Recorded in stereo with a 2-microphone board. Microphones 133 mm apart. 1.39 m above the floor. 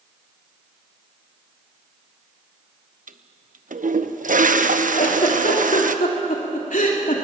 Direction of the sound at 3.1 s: 80° right.